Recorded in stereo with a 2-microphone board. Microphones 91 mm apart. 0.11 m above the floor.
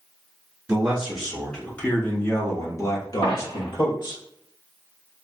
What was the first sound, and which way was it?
A man speaking, 20° right (ahead or behind).